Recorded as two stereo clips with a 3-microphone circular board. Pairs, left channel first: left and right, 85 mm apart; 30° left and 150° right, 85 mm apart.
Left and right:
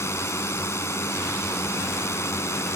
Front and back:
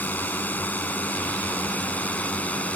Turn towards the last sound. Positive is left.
turn(degrees=90)